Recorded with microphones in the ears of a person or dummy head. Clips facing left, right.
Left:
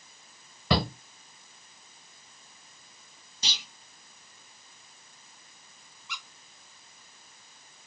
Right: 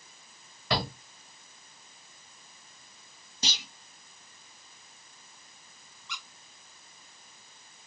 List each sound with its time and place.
0.7 s a shout: 65° left (ahead or behind), 1.0 m
3.4 s a clunk: 40° right (ahead or behind), 1.3 m
6.1 s a squeak: 10° left (ahead or behind), 1.7 m